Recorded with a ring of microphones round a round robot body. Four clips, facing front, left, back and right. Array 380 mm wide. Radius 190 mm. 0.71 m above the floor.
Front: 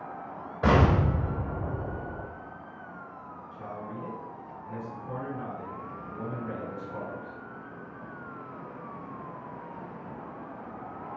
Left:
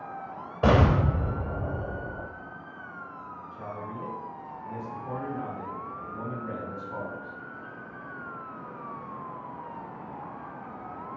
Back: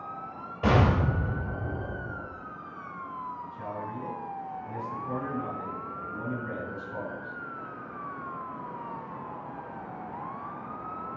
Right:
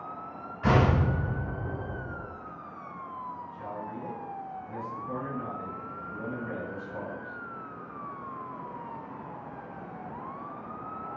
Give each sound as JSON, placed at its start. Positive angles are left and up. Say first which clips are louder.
{"t": 0.6, "sound": "an explosion", "louder": "left 2 dB, front 1 dB", "azimuth_deg": 80, "distance_m": 3.5}
{"t": 3.5, "sound": "a man speaking", "louder": "even, back 3 dB", "azimuth_deg": 95, "distance_m": 3.0}